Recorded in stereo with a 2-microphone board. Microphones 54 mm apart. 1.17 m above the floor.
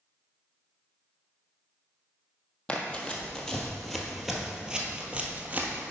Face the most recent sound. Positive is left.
turn(degrees=-35)  # may be behind; listen again after turning